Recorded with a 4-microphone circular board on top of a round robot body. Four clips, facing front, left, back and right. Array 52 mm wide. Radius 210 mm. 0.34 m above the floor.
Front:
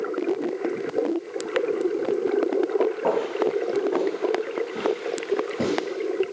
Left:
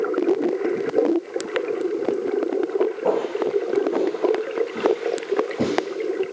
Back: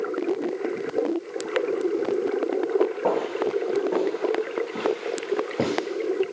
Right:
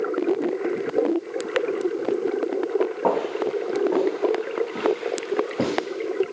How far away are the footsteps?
About 1.3 m.